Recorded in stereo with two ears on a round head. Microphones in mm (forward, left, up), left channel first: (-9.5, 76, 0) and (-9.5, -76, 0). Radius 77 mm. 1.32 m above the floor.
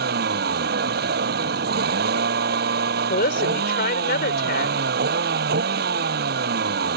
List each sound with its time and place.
0.0 s a vehicle: 65° right (ahead or behind)
3.1 s a woman speaking: 60° left (ahead or behind)